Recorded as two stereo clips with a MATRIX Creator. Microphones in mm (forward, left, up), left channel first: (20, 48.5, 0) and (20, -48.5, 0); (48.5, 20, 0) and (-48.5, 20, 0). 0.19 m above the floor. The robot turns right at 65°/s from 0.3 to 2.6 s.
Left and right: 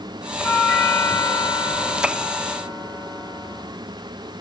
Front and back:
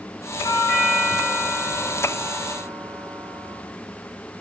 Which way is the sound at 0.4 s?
40° left.